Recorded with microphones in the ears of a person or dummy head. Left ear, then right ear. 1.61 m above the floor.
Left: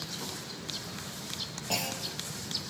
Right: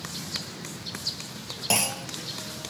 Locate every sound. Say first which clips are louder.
1.7 s a clunk: right 7 dB; 55° right (ahead or behind), 1.1 m